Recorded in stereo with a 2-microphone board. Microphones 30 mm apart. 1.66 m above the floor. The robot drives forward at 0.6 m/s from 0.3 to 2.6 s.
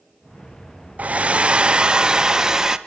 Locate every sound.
1.0 s a hair dryer: 50° right (ahead or behind), 0.7 m; by 2.8 s 20° right (ahead or behind), 1.4 m